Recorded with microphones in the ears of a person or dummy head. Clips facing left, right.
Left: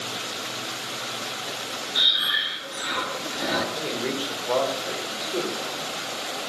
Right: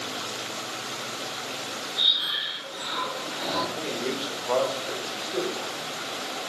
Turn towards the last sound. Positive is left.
turn(degrees=20)  # may be behind; listen again after turning